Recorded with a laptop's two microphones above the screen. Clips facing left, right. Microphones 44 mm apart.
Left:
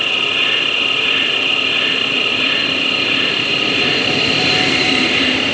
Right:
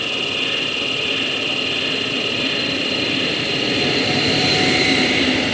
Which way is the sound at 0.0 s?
40° left (ahead or behind).